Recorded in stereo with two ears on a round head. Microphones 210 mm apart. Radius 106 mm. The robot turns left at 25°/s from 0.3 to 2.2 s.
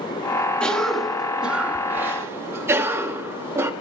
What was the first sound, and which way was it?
A cough, 5° left (ahead or behind).